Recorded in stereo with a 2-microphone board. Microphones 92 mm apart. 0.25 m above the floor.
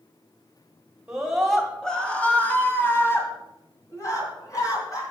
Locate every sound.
1.1 s a scream: 10° right (ahead or behind), 1.5 m; by 5.0 s 40° left (ahead or behind), 3 m